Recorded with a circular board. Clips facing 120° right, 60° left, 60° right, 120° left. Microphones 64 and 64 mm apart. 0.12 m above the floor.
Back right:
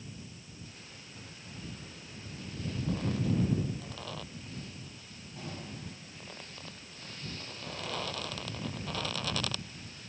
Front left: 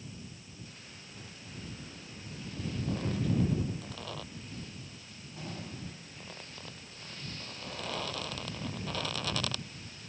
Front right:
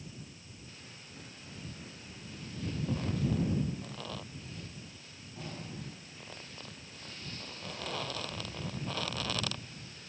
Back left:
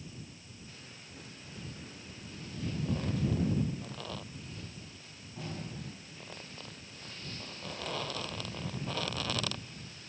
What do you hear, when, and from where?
Only background noise.